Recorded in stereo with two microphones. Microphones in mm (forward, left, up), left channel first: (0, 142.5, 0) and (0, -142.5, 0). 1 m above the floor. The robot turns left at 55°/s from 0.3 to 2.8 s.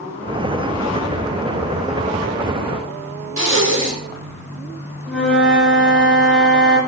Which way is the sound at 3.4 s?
65° right (ahead or behind).